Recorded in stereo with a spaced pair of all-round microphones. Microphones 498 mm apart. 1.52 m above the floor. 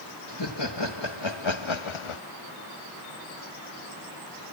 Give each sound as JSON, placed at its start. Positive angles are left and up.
{"t": 0.3, "sound": "laughter", "side_deg": 55, "distance_m": 2.0}